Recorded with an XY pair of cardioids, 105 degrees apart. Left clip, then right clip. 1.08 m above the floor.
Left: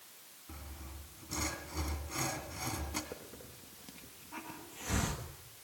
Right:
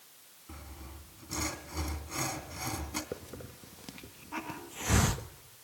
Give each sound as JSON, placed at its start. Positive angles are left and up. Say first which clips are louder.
{"t": 0.5, "sound": "sawing", "louder": "right 2 dB", "azimuth_deg": -20, "distance_m": 2.5}
{"t": 3.1, "sound": "a hiss", "louder": "right 5 dB", "azimuth_deg": -55, "distance_m": 1.3}